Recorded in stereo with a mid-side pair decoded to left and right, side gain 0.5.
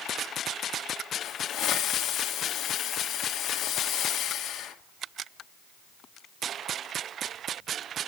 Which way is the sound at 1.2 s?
65° left.